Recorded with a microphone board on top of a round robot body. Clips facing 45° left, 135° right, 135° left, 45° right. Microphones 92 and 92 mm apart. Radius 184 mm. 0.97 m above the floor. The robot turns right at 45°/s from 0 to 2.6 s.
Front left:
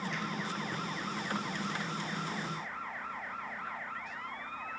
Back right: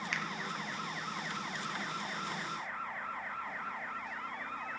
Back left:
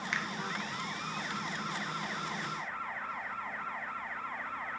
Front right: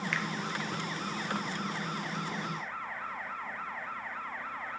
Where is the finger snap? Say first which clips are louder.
Front left 1 dB, even; 155° right, 1.0 m; by 0.3 s 150° right, 1.0 m.